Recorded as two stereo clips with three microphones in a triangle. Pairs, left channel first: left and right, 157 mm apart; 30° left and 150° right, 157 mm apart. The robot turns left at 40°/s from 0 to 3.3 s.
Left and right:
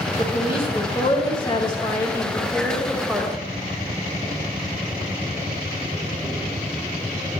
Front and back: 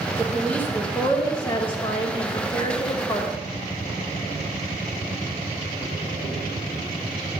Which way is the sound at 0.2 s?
115° left.